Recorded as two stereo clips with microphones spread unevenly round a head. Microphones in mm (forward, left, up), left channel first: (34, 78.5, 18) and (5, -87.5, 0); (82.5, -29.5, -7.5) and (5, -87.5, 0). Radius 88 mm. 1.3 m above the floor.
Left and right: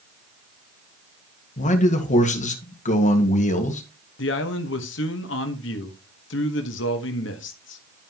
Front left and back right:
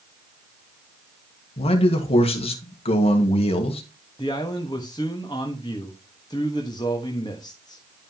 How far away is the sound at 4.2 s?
About 1.2 m.